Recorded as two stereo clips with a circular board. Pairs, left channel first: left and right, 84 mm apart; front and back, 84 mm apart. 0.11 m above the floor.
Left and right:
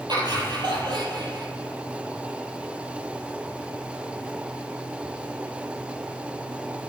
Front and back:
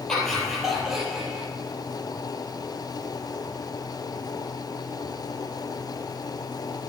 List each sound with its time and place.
0.1 s laughter: 80° right, 3.5 m; by 1.5 s 105° right, 4 m